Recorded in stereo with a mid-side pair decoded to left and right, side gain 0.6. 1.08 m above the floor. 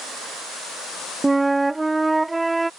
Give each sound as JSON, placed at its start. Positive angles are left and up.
{"t": 1.2, "sound": "a flute", "azimuth_deg": -10}